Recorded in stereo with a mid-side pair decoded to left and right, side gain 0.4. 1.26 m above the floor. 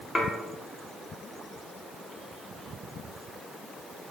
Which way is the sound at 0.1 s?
20° left.